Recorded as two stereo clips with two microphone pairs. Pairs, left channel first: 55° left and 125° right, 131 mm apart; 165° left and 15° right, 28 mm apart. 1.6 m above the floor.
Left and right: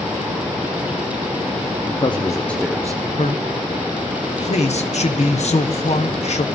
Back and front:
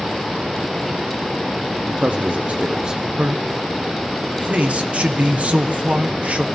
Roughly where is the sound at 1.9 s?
Ahead.